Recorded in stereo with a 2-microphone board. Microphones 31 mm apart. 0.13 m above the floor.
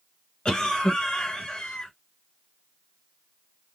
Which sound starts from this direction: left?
A cough, at 0.5 s.